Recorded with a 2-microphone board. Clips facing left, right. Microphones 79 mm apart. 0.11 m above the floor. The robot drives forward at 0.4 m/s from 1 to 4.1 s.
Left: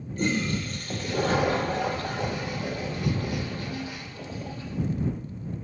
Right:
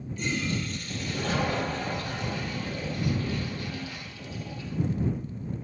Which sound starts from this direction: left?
A toilet flushing, at 0.1 s.